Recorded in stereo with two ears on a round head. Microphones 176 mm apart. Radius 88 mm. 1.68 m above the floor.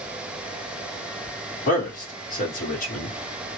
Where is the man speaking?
45° left (ahead or behind), 1.5 m.